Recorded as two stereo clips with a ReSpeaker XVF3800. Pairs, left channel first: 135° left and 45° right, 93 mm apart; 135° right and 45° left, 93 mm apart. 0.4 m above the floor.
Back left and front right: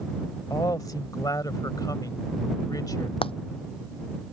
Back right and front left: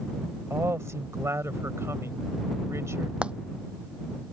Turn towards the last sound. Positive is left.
turn(degrees=125)